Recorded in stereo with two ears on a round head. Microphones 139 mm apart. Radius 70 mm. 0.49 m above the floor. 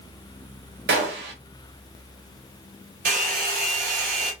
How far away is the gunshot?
About 0.9 m.